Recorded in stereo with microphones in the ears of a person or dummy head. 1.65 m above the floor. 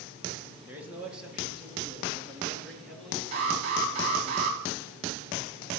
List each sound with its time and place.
0.7 s a man speaking: 10° right (ahead or behind), 2 m; by 4.3 s 5° left (ahead or behind), 4.5 m
3.3 s an alarm: 35° right (ahead or behind), 3 m